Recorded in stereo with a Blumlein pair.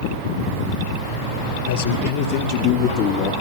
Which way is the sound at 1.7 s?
60° left.